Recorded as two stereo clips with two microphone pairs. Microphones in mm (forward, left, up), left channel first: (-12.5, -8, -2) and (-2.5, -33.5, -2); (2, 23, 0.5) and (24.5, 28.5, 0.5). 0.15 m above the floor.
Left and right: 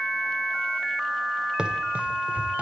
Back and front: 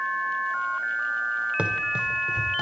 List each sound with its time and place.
1.6 s running footsteps: 15° right, 1.6 m; by 2.6 s 50° right, 1.8 m